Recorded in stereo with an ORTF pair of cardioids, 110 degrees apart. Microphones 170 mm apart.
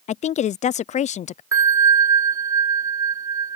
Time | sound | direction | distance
0.1 | a woman speaking | 45° left | ?
1.5 | a bell | 20° right | ?